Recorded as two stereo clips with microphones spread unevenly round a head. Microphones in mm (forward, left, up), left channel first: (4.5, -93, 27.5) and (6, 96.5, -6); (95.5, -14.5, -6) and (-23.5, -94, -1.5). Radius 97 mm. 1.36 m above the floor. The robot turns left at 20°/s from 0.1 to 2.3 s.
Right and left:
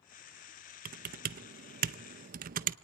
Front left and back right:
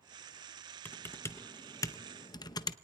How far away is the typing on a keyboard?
About 0.6 m.